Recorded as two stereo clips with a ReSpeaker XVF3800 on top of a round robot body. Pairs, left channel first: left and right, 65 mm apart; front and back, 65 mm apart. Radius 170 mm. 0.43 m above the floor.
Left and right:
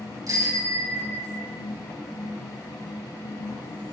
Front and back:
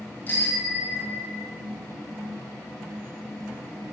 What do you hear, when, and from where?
0.3 s a bicycle bell: 60° right, 8.5 m